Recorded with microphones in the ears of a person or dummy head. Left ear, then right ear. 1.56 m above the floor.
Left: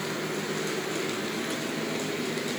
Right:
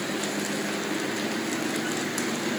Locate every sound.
Only background noise.